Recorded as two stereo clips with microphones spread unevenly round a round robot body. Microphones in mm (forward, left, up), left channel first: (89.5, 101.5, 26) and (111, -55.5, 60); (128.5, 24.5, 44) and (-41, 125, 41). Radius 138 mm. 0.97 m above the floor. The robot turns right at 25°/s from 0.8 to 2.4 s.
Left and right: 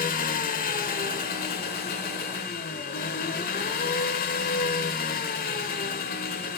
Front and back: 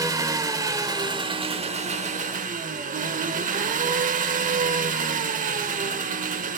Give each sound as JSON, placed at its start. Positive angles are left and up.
{"t": 0.0, "sound": "an engine running", "azimuth_deg": 85, "distance_m": 0.8}